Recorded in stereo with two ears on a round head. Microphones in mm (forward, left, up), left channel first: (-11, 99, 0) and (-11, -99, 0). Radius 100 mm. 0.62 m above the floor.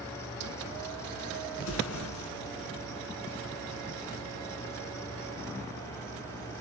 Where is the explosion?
65° left (ahead or behind), 5.5 m.